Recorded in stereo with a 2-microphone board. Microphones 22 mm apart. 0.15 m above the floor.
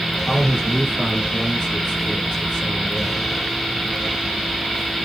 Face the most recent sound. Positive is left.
turn(degrees=15)  # may be behind; listen again after turning